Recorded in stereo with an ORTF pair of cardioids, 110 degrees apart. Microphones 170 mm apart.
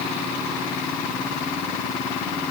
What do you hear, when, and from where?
Only background noise.